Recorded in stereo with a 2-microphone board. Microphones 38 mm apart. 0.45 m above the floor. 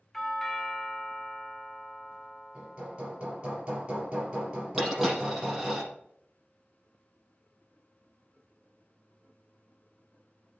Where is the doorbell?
10° left (ahead or behind), 1.5 m.